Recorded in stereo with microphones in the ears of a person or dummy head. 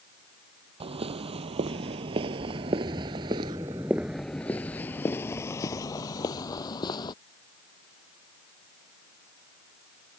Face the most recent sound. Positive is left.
turn(degrees=25)  # may be behind; listen again after turning